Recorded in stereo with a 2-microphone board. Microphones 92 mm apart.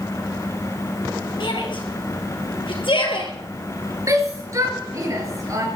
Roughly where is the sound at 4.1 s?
Right.